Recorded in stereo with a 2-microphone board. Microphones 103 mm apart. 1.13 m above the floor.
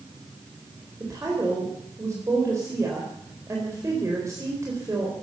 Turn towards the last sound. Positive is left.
turn(degrees=-30)  # may be behind; listen again after turning